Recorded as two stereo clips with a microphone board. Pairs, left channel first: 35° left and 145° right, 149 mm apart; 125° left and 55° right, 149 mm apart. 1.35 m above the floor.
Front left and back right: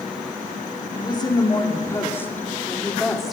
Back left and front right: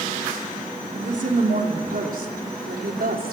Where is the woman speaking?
25° right, 4 m; by 3.3 s 55° right, 4 m.